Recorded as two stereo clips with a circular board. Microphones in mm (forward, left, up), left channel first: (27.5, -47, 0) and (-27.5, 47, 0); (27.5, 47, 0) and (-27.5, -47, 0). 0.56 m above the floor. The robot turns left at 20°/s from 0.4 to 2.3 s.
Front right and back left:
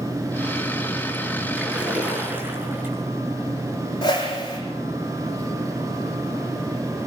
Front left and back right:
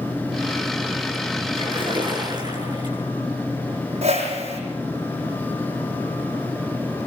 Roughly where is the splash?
Behind right.